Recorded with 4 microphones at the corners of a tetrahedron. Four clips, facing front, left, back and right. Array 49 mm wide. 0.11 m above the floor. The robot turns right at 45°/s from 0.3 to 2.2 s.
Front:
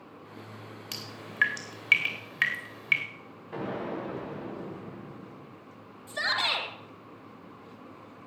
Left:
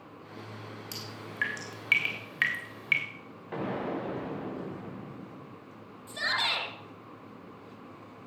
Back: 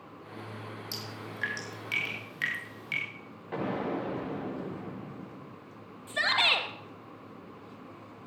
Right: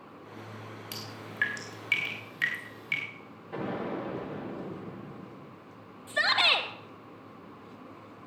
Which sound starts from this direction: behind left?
An explosion, at 3.5 s.